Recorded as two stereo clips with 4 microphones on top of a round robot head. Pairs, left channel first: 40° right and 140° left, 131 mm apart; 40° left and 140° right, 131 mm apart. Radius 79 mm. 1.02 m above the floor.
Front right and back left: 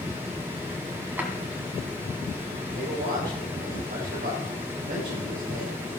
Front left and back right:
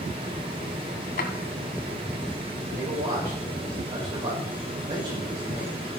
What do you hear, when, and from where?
1.2 s a drawer: 60° left, 2 m
2.7 s a man speaking: 165° left, 6 m